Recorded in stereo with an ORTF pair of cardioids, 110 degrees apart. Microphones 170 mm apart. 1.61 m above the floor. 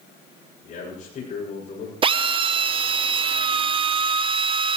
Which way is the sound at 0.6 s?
45° left.